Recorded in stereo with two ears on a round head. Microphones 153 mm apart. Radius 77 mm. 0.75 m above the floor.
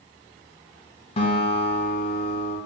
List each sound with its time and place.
1.2 s a guitar: 35° left (ahead or behind), 0.9 m